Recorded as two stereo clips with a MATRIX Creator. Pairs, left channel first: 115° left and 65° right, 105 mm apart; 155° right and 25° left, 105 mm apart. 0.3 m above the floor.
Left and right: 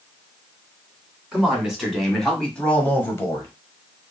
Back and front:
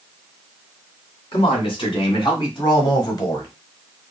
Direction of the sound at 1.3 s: 150° right.